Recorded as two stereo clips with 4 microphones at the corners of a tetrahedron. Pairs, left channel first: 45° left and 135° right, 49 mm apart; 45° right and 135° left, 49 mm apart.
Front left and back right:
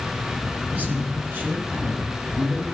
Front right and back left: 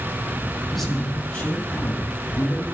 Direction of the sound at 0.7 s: 135° right.